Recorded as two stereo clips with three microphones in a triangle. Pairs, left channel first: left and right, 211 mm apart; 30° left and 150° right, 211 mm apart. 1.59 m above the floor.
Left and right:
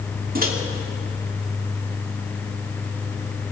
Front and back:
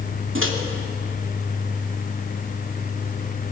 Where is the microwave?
135° right, 2.5 m.